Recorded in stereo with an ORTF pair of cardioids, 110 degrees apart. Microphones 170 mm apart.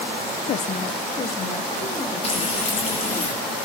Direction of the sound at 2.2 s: 35° left.